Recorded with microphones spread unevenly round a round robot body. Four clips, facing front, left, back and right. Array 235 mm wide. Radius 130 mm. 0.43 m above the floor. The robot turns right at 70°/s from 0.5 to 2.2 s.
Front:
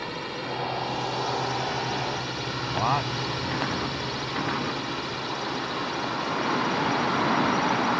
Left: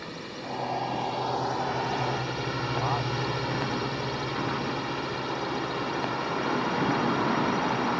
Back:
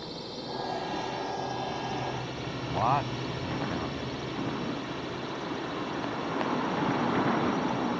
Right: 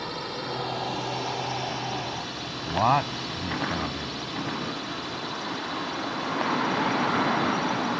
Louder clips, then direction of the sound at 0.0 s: Right 5 dB, front 6 dB; 35° right.